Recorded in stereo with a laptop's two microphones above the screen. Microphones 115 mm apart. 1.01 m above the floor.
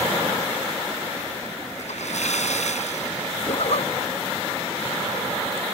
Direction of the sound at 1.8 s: 85° left.